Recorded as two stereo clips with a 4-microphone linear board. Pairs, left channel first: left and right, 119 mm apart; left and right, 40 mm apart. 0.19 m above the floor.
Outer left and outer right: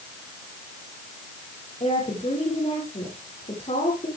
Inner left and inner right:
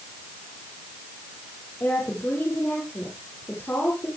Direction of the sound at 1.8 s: 70° left (ahead or behind).